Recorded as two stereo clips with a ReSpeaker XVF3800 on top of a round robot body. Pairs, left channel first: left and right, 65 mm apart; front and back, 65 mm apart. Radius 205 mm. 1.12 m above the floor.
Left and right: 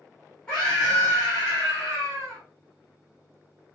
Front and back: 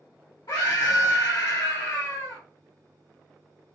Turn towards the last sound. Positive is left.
turn(degrees=15)